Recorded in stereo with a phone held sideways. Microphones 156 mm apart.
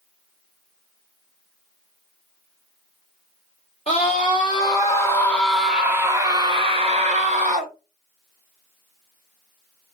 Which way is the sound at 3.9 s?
40° left (ahead or behind).